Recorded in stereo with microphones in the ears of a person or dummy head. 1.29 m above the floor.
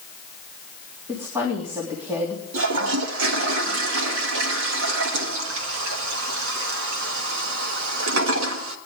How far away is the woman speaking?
About 3 m.